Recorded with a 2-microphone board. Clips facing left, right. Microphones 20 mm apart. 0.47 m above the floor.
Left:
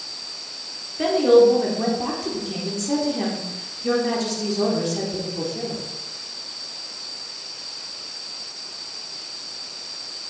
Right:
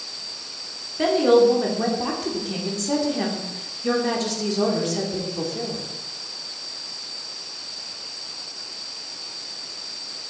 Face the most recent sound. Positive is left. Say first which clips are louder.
# left 2 dB
turn(degrees=-10)  # may be behind; listen again after turning